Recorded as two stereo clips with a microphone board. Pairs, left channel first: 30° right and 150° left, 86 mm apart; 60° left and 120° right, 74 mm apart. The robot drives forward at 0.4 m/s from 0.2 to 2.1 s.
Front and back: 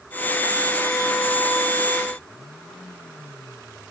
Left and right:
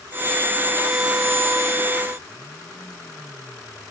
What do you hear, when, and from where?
Only background noise.